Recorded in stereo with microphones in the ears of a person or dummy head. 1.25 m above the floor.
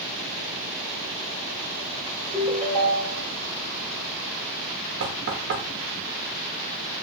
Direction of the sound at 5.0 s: 65° right (ahead or behind).